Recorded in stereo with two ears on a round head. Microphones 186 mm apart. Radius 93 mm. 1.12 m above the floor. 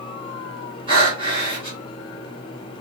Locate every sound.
0.9 s breathing: 25° right (ahead or behind), 2.5 m